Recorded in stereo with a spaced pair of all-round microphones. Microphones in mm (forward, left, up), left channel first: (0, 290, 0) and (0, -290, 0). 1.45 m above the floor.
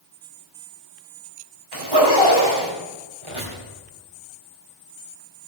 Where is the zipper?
40° right (ahead or behind), 5 m.